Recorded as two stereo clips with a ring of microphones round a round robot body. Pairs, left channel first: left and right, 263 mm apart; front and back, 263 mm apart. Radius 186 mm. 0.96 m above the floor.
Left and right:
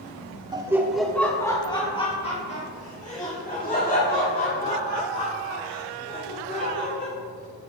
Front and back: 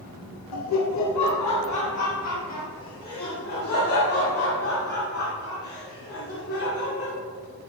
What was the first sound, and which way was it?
Laughter, 15° right.